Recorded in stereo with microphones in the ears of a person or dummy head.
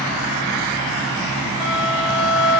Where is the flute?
20° left (ahead or behind), 1.2 m.